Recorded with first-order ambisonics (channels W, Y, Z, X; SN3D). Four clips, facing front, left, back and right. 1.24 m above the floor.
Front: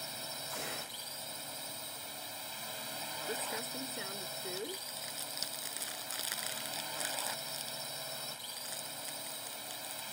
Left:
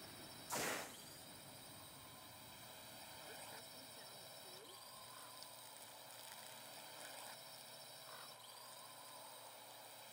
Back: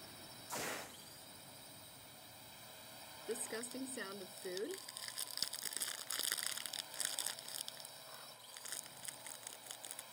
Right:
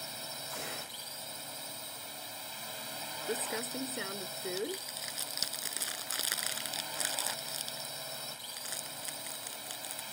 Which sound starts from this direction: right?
Crumpling, at 3.3 s.